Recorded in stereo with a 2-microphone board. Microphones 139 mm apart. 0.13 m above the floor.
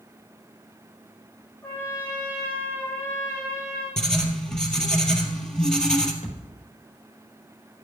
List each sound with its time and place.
1.6 s a trumpet: 15° left (ahead or behind), 5 m
4.0 s writing: 5° left (ahead or behind), 1.8 m
6.2 s a thud: 50° left (ahead or behind), 4.5 m